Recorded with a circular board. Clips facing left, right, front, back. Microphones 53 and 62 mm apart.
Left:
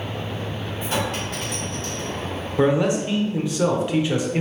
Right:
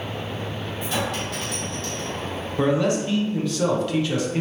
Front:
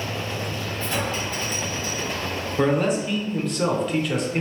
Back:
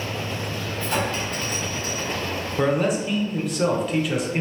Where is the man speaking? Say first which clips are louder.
Left 2 dB, front 1 dB; 105° left, 0.7 m.